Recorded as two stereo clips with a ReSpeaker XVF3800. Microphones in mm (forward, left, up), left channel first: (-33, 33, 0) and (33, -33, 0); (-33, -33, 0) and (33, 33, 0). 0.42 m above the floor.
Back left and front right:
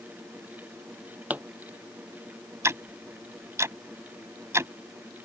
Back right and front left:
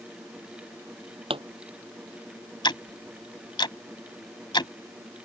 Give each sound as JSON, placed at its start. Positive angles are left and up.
{"t": 1.3, "sound": "a pop", "azimuth_deg": 30}
{"t": 2.6, "sound": "ticking", "azimuth_deg": -105}